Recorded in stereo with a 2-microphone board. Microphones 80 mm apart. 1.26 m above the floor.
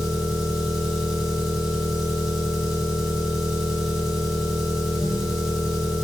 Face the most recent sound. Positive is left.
turn(degrees=0)  # may be behind; listen again after turning